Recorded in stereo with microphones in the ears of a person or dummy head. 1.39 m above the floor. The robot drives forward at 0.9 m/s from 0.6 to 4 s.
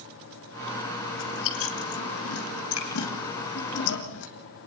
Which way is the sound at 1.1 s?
70° left (ahead or behind).